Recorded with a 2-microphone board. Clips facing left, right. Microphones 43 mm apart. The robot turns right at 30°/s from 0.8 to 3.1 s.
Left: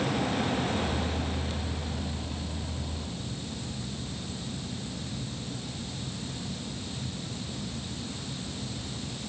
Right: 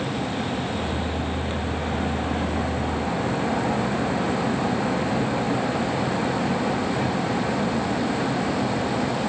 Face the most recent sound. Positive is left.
turn(degrees=-85)